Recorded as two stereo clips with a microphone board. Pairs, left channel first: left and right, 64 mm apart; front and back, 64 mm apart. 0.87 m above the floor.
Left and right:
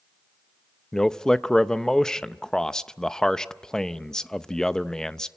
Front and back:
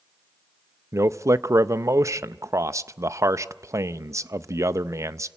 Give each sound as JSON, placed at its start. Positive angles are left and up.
{"t": 0.9, "sound": "a man speaking", "azimuth_deg": 170, "distance_m": 0.5}